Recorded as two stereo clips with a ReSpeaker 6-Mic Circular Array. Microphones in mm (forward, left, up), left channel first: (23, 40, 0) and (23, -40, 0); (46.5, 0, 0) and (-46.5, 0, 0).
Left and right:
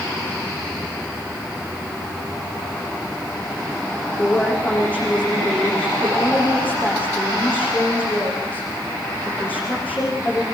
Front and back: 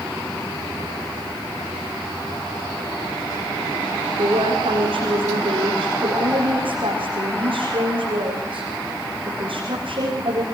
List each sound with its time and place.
4.2 s a woman speaking: 160° left, 6.5 m